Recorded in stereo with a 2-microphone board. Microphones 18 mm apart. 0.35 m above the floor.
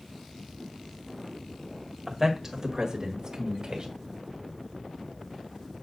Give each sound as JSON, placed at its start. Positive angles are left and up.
{"t": 2.1, "sound": "a man speaking", "side_deg": -15, "distance_m": 1.7}